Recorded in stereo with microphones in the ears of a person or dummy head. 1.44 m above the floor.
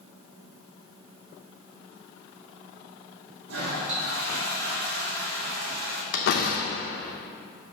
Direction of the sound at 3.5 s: 75° right (ahead or behind).